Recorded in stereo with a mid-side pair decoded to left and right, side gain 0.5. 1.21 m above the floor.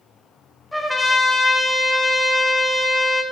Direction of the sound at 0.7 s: 15° left.